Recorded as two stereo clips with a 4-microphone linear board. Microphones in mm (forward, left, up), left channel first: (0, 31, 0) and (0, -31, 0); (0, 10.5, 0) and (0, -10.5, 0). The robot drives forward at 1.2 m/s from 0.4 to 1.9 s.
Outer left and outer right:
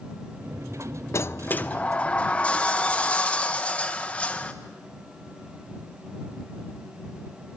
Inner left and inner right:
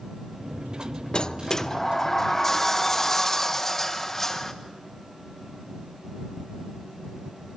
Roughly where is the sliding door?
Left.